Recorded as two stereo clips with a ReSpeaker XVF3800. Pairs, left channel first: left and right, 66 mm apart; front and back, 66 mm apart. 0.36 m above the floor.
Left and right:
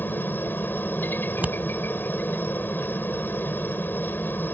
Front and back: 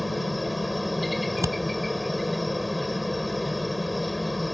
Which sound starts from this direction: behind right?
Scissors, at 1.3 s.